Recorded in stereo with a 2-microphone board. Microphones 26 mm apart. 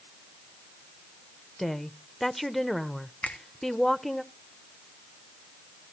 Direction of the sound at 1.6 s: 5° left (ahead or behind).